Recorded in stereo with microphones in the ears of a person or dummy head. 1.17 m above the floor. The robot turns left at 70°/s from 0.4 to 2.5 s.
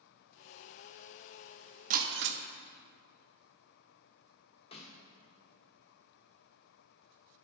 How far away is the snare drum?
About 1.4 m.